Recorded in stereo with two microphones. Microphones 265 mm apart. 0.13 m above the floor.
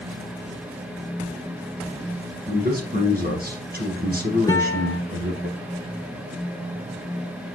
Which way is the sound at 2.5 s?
35° right (ahead or behind).